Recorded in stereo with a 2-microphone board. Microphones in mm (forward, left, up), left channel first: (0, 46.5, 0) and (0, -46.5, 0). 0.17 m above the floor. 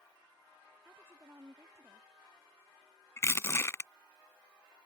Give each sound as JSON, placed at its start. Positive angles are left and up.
{"t": 0.8, "sound": "a woman speaking", "side_deg": -25}
{"t": 3.2, "sound": "crushing", "side_deg": 30}